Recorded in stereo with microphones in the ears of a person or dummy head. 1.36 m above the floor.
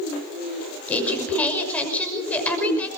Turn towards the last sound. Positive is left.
turn(degrees=10)  # may be behind; listen again after turning